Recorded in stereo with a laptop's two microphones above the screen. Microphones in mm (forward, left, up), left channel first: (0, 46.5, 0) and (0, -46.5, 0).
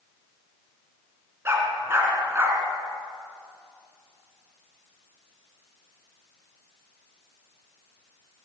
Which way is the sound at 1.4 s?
25° right (ahead or behind).